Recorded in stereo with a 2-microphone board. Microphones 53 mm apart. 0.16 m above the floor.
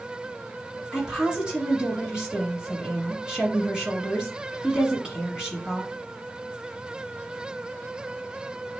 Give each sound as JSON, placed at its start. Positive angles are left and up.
{"t": 0.9, "sound": "a woman speaking", "side_deg": -15, "distance_m": 1.2}